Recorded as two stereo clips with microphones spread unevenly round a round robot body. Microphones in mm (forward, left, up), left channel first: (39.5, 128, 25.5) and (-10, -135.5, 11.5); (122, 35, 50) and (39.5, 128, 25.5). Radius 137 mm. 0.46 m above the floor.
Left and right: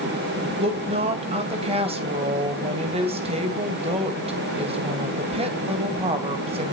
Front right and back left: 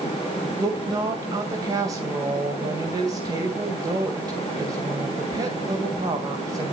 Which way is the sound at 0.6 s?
165° right.